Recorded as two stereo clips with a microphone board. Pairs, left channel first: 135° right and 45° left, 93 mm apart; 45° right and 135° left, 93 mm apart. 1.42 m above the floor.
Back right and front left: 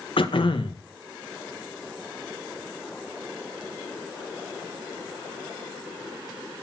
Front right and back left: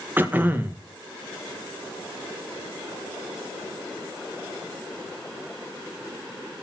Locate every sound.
0.2 s throat clearing: 155° right, 1.8 m